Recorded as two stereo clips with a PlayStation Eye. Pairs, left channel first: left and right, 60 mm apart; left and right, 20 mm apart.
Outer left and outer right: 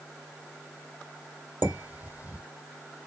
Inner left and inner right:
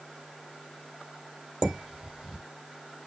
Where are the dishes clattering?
35° right (ahead or behind), 3.5 m.